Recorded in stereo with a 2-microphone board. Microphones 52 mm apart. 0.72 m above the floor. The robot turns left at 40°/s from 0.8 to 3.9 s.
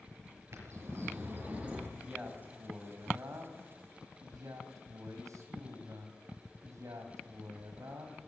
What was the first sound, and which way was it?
A bird, 120° right.